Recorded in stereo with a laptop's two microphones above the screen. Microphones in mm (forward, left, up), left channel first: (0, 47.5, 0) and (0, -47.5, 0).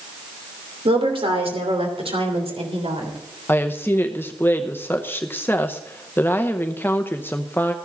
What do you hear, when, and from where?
0.8 s a woman speaking: 70° right (ahead or behind), 3 m; by 3.2 s 85° right, 3.5 m
3.5 s a woman speaking: 20° left (ahead or behind), 0.7 m